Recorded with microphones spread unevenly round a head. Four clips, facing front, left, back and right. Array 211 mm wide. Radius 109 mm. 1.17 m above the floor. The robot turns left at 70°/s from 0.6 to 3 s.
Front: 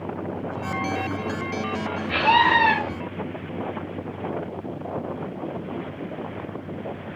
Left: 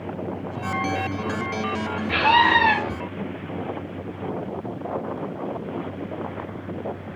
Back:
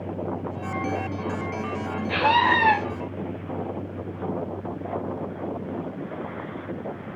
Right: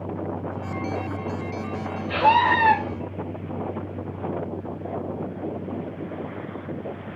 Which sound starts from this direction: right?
A scream, at 2.1 s.